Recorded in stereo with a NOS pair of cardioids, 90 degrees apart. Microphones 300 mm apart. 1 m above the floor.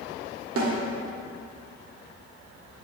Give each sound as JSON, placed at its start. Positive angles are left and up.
{"t": 0.6, "sound": "a snare drum", "azimuth_deg": -55, "distance_m": 1.7}